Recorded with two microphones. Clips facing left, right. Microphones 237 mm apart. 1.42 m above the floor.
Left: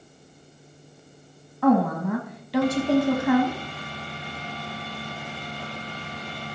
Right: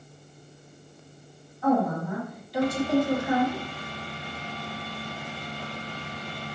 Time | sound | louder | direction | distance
1.6 | a woman speaking | left 4 dB | 75° left (ahead or behind) | 1.1 m